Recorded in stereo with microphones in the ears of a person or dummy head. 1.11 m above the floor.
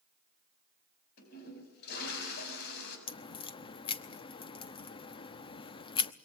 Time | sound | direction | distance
1.2 | a toilet flushing | 55° left (ahead or behind) | 7 m
3.1 | a crack | 25° left (ahead or behind) | 0.8 m